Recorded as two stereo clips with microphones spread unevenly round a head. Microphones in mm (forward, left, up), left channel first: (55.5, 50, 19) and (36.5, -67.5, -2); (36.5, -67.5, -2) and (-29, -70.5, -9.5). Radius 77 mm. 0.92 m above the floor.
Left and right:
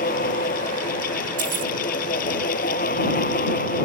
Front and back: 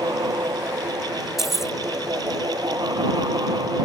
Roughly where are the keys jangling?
Right.